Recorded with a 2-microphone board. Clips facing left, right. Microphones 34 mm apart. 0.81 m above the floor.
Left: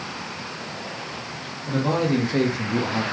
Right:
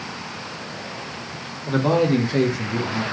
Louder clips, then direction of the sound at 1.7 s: Right 4 dB; 30° right (ahead or behind).